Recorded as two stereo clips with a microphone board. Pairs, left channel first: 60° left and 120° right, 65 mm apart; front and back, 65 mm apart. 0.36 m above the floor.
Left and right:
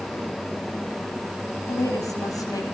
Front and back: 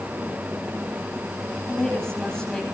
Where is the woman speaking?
75° left, 9 m.